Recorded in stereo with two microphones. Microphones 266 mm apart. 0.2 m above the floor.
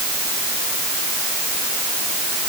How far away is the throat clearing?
I don't hear throat clearing.